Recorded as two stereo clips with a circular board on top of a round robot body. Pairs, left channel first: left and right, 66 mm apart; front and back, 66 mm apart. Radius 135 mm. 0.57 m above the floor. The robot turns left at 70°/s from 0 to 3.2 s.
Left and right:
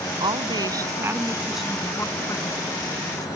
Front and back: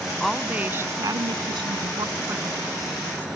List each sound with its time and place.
0.2 s a woman speaking: 85° right; by 3.3 s 65° left